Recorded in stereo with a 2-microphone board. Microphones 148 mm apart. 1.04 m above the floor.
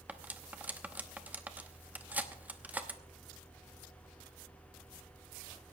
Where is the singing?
No singing in this recording.